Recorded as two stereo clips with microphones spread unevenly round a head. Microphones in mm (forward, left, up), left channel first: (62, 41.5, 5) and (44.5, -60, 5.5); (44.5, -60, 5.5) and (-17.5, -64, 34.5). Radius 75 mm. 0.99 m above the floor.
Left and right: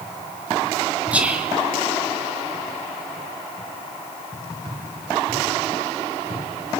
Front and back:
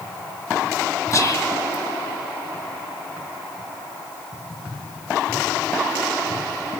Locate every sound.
1.1 s whispering: 20° right, 2.5 m